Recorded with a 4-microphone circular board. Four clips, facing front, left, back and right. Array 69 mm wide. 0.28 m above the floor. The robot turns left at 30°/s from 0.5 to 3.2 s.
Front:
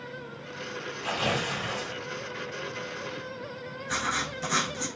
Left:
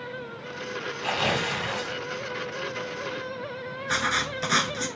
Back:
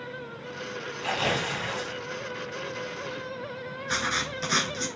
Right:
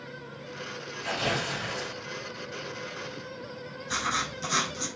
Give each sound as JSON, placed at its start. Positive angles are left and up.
{"t": 1.0, "sound": "tearing paper", "azimuth_deg": 135, "distance_m": 1.8}
{"t": 3.9, "sound": "writing", "azimuth_deg": 115, "distance_m": 0.6}